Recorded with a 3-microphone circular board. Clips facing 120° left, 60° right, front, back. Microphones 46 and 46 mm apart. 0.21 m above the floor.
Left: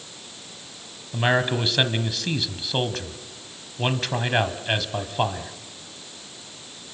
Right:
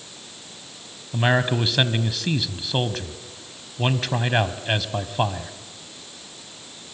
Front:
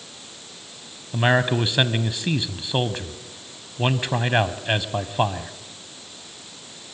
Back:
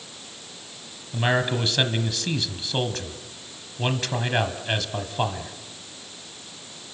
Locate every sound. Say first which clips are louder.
1.1 s a man speaking: right 1 dB, front 3 dB; 25° left, 1.1 m